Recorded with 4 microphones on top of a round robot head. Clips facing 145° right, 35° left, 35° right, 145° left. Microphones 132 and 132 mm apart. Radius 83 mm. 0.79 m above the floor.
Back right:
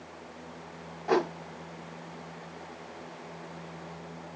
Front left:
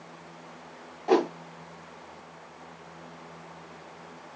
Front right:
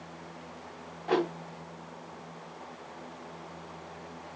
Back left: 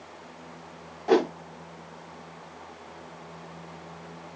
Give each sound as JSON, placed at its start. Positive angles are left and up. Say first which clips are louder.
{"t": 1.1, "sound": "a whoosh", "louder": "front left 4 dB, back left 6 dB", "azimuth_deg": 100, "distance_m": 1.0}